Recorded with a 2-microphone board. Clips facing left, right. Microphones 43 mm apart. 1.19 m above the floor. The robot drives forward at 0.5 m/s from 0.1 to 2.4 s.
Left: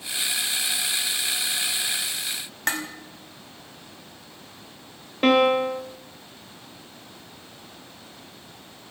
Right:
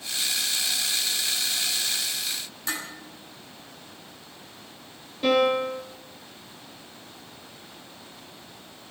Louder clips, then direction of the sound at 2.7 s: Left 6 dB; 75° left (ahead or behind).